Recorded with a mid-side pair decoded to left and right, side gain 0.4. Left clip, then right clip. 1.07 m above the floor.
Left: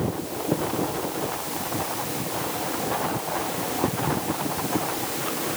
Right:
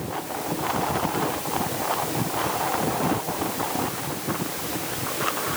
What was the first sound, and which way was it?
Only background noise.